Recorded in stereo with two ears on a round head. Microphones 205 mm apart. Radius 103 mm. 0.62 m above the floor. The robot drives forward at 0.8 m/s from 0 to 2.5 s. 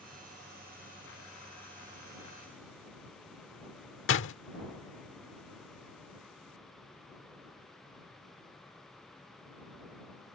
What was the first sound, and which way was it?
A door slam, 60° left (ahead or behind).